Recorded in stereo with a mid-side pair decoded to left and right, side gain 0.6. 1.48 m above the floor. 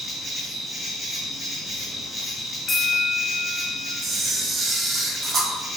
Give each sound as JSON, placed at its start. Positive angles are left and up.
{"t": 0.0, "sound": "an insect", "azimuth_deg": -5, "distance_m": 0.8}
{"t": 2.7, "sound": "a bell", "azimuth_deg": 30, "distance_m": 0.6}
{"t": 4.0, "sound": "a camera shutter", "azimuth_deg": -40, "distance_m": 0.5}